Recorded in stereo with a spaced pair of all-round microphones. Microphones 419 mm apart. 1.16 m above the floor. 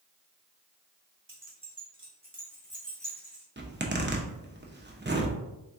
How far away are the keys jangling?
About 1.2 m.